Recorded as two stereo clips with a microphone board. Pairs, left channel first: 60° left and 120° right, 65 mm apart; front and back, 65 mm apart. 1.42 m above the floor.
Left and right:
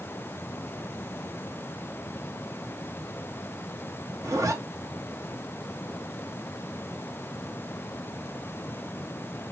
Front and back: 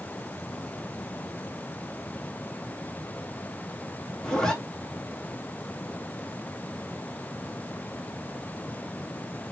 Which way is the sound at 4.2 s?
80° right.